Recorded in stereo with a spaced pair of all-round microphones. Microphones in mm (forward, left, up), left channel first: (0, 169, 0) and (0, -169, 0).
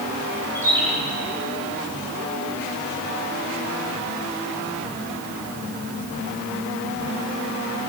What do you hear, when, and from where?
0.6 s a bird: 5° left (ahead or behind), 4.5 m